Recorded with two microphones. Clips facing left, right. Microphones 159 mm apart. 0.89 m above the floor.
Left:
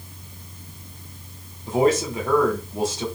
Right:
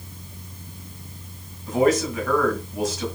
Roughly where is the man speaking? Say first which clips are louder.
Even; left.